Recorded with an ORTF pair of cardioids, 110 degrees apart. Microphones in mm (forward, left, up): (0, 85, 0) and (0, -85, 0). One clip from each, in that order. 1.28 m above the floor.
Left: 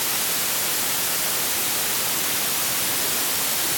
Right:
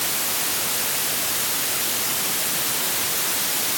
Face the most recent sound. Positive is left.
No sound to turn to.